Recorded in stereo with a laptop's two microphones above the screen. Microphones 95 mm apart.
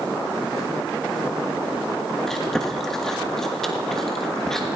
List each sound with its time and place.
2.3 s chewing: 5° left (ahead or behind), 1.4 m